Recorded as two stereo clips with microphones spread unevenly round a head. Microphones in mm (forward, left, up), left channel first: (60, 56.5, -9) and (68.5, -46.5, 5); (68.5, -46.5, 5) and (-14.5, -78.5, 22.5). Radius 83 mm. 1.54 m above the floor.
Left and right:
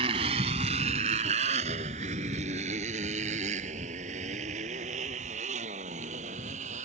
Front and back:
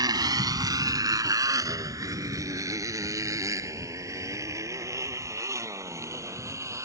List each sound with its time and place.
0.0 s a motorcycle: 125° right; by 6.8 s 105° right